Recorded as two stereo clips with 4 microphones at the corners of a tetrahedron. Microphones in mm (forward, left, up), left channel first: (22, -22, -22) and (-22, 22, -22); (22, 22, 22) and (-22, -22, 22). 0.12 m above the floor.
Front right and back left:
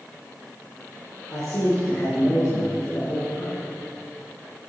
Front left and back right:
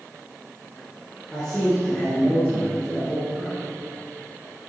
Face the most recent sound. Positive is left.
turn(degrees=-30)